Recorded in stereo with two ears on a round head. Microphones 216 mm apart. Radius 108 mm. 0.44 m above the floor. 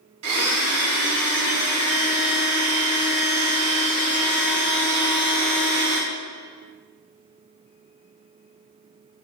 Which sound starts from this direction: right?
A blender, at 0.2 s.